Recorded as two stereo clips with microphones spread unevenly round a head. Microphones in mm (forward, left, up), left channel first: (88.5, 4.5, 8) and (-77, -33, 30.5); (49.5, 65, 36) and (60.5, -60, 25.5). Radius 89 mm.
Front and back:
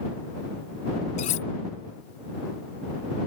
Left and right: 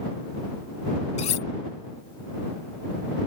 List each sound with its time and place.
1.2 s cutlery clinking: 65° left